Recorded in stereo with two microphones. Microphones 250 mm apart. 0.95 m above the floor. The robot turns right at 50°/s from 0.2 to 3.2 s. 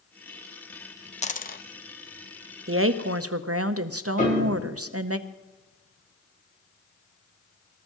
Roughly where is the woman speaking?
Right.